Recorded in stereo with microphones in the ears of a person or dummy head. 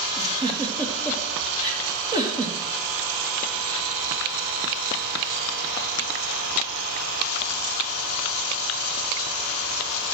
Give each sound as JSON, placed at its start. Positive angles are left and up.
{"t": 0.2, "sound": "a giggle", "side_deg": -20, "distance_m": 3.0}